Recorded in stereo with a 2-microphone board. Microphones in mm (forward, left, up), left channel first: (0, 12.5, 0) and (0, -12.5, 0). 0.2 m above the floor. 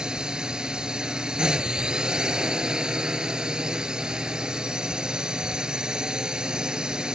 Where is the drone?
30° right (ahead or behind).